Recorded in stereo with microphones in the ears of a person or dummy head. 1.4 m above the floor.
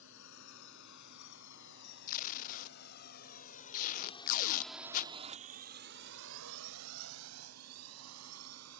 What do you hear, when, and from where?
0.0 s a drone: 70° left (ahead or behind); by 8.8 s 85° right
2.1 s tape being pulled: 45° left (ahead or behind)